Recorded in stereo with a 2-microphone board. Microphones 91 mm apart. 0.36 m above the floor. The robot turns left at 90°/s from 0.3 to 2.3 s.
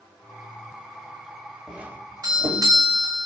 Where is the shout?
No shout in this recording.